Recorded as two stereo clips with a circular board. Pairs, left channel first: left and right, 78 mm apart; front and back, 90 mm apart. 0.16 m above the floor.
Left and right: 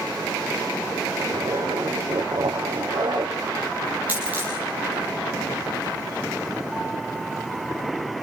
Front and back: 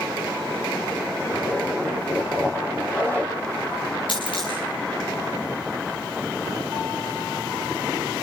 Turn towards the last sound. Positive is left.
turn(degrees=-20)